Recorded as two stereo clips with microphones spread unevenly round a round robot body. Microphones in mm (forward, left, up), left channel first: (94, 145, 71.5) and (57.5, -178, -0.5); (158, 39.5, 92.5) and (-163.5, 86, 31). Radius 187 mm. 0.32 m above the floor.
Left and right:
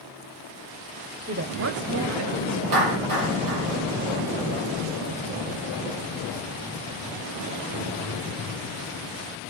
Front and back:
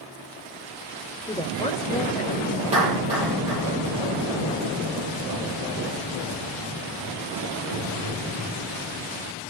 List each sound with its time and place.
1.3 s a woman speaking: 95° right, 1.2 m; by 3.7 s 80° right, 3.5 m
2.7 s a clap: 115° right, 7.5 m